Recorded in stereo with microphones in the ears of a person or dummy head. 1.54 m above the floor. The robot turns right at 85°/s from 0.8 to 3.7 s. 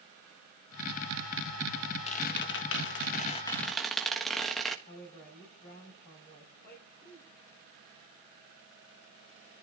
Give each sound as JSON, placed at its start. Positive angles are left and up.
{"t": 2.1, "sound": "a squeak", "azimuth_deg": 40, "distance_m": 1.3}
{"t": 4.9, "sound": "a woman speaking", "side_deg": 60, "distance_m": 5.5}